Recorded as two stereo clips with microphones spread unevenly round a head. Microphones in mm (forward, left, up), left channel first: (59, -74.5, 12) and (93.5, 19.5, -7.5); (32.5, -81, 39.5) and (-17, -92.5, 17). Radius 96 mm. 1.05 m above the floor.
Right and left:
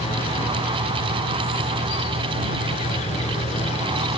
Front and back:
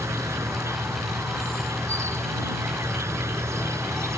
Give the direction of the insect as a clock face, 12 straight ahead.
4 o'clock.